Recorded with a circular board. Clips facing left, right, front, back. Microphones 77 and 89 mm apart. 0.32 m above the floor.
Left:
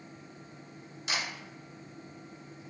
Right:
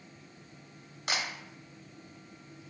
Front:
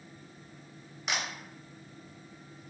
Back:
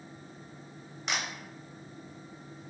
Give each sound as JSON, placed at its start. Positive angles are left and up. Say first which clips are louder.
{"t": 1.1, "sound": "a camera shutter", "louder": "right 1 dB, even", "azimuth_deg": -85, "distance_m": 0.6}